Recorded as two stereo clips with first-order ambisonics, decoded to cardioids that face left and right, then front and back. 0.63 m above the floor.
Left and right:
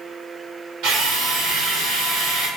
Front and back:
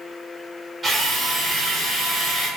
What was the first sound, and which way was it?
A drill, 105° right.